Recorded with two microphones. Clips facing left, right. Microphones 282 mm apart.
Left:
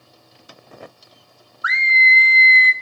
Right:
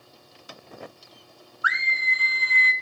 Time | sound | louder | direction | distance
1.6 | a scream | left 7 dB | 25° left (ahead or behind) | 0.8 m